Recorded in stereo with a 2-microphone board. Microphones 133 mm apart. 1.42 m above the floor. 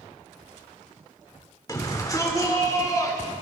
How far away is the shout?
About 3.5 m.